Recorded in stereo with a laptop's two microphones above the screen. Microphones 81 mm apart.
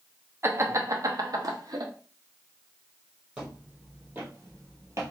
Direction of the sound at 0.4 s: 35° right (ahead or behind).